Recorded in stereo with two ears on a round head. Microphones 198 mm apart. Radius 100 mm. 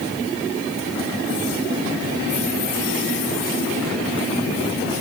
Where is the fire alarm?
No fire alarm in this recording.